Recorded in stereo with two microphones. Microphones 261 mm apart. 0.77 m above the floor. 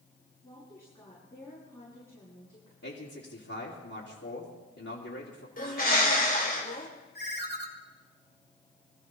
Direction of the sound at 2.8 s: 65° left (ahead or behind).